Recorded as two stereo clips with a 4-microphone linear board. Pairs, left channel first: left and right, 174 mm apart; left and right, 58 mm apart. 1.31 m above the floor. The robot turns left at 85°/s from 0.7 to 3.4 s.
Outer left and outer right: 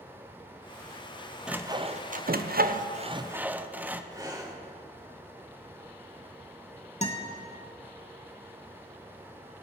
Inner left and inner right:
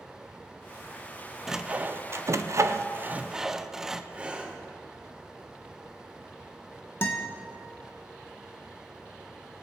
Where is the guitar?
40° left (ahead or behind), 1.4 m.